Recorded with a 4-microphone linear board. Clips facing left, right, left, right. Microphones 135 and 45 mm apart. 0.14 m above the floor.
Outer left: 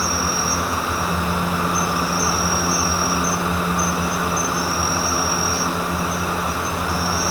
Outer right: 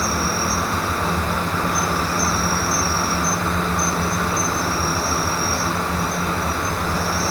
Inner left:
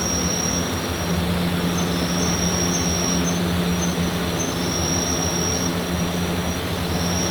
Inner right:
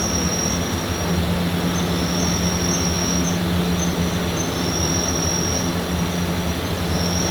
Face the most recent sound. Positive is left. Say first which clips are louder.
# outer right 1 dB, inner right 1 dB
turn(degrees=-60)  # may be behind; listen again after turning